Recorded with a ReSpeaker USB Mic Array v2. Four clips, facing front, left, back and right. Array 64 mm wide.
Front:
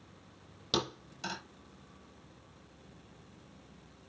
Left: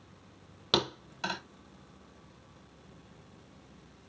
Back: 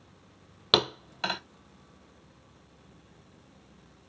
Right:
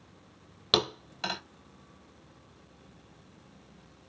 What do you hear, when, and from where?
0.7 s a thud: 175° right, 0.9 m